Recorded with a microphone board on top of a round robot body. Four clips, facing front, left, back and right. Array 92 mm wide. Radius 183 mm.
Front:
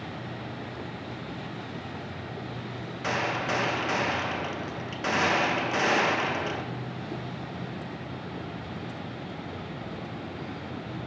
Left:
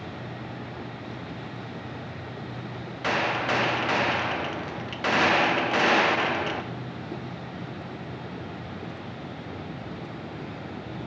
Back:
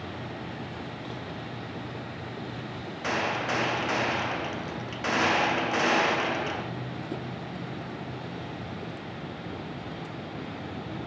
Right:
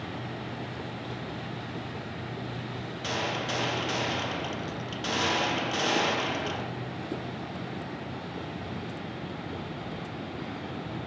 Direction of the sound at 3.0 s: 90° left.